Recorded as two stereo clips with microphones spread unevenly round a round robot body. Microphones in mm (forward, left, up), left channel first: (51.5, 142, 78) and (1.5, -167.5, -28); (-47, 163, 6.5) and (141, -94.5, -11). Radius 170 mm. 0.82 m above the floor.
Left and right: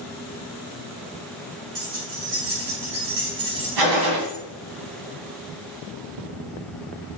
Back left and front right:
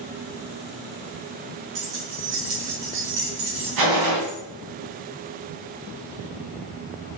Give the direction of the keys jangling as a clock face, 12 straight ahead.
3 o'clock.